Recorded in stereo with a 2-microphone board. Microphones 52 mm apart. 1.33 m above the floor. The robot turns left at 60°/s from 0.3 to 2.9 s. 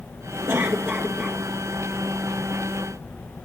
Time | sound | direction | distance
0.5 | a cough | 115° right | 2.5 m